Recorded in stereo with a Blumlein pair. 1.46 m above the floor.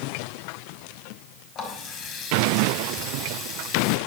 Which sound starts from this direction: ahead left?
A running tap, at 1.6 s.